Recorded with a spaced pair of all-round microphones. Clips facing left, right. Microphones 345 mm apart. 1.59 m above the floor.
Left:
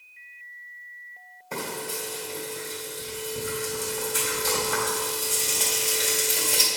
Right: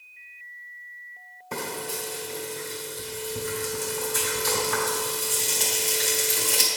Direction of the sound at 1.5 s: 20° right (ahead or behind).